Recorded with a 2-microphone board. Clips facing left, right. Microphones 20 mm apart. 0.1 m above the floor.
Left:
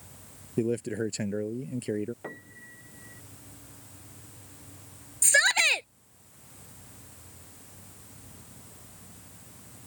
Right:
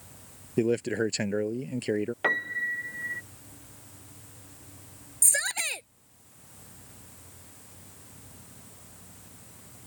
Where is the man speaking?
30° right (ahead or behind).